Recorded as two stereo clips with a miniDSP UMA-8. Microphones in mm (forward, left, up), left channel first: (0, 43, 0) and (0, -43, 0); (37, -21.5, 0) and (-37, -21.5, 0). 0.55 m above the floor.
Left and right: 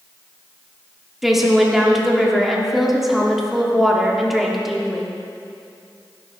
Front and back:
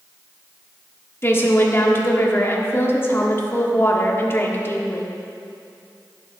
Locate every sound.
1.2 s a woman speaking: 5° right, 1.2 m